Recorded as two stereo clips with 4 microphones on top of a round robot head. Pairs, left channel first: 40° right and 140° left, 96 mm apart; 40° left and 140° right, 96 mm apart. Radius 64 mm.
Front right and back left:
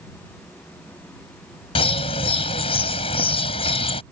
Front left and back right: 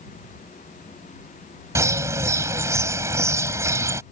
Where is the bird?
75° right.